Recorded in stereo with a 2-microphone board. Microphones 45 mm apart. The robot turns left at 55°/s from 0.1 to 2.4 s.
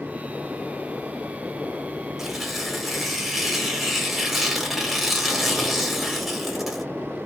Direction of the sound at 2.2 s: 10° right (ahead or behind).